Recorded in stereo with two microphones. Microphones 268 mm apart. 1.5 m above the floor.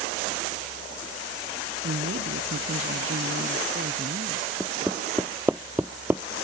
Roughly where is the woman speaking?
Right.